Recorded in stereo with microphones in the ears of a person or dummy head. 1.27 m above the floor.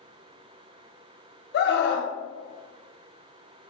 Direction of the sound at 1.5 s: 55° left (ahead or behind).